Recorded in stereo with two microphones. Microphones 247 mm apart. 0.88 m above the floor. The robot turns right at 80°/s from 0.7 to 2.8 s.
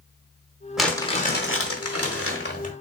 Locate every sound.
0.8 s crumpling: straight ahead, 1.3 m; by 2.7 s 155° left, 1.3 m